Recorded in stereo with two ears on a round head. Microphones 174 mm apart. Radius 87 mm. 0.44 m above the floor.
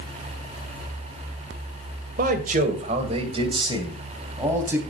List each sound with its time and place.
2.2 s a man speaking: 45° right (ahead or behind), 2 m; by 4.8 s 10° right (ahead or behind), 3 m